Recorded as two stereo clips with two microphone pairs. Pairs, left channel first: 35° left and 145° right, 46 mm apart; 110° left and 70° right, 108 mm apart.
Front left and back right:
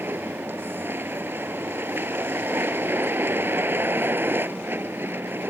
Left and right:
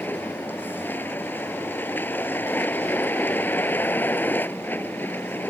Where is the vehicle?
Straight behind.